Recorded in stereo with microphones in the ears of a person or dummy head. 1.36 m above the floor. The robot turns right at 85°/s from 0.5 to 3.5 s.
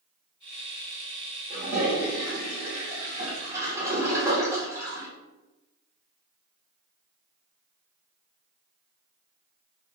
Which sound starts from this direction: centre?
A toilet flushing, at 1.5 s.